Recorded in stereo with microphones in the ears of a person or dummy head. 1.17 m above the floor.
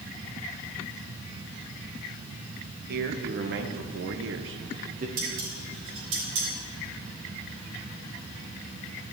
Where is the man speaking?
55° right (ahead or behind), 1.3 m; by 5.1 s 35° right (ahead or behind), 0.7 m.